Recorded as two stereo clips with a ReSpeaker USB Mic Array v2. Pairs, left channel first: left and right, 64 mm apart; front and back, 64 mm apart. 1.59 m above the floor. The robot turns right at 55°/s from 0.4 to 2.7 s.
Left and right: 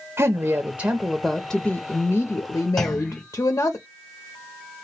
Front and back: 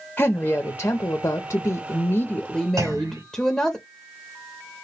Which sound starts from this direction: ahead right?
A woman speaking, at 0.2 s.